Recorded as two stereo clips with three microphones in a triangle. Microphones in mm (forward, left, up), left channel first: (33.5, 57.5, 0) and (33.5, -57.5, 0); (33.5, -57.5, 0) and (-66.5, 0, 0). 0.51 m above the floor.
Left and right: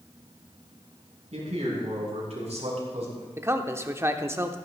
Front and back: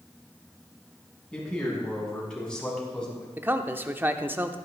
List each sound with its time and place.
1.3 s a man speaking: 110° right, 5 m
3.4 s a man speaking: 145° right, 0.8 m